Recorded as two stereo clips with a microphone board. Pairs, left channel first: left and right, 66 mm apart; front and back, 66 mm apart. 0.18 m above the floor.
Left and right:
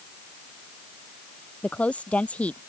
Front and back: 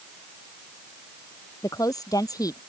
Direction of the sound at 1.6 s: 20° left.